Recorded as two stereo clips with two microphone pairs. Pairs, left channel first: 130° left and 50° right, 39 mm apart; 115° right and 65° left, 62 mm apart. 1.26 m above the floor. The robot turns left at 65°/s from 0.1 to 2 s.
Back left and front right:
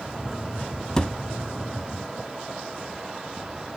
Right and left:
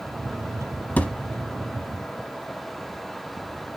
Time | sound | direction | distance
1.0 | a thud | 160° right | 0.9 m